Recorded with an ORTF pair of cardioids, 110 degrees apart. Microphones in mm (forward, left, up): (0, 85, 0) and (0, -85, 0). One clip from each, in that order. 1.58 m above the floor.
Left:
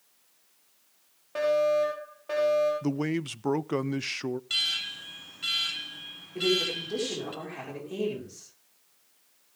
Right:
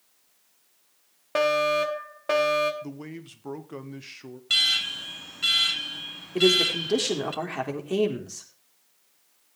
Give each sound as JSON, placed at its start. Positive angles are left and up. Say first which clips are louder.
{"t": 1.4, "sound": "a fire alarm", "louder": "right 2 dB", "azimuth_deg": -65, "distance_m": 3.0}
{"t": 2.8, "sound": "a man speaking", "louder": "left 9 dB", "azimuth_deg": 45, "distance_m": 0.5}
{"t": 4.5, "sound": "an alarm", "louder": "right 7 dB", "azimuth_deg": -35, "distance_m": 1.2}
{"t": 6.3, "sound": "a man speaking", "louder": "right 6 dB", "azimuth_deg": -60, "distance_m": 4.5}